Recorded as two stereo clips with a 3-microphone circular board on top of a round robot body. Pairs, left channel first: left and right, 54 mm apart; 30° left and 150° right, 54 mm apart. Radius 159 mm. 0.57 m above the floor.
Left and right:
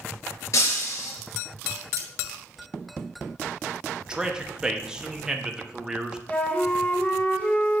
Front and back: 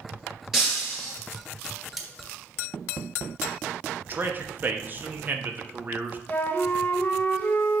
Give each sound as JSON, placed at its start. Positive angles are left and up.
{"t": 0.5, "sound": "breaking glass", "azimuth_deg": 130, "distance_m": 2.5}
{"t": 2.0, "sound": "cutlery clinking", "azimuth_deg": -65, "distance_m": 1.1}
{"t": 4.0, "sound": "a man speaking", "azimuth_deg": -155, "distance_m": 1.1}
{"t": 6.3, "sound": "a flute", "azimuth_deg": 50, "distance_m": 1.3}